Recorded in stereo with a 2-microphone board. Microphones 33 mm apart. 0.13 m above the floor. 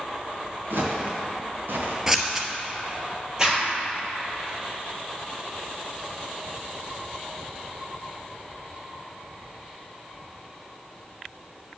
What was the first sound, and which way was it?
Footsteps, 75° right (ahead or behind).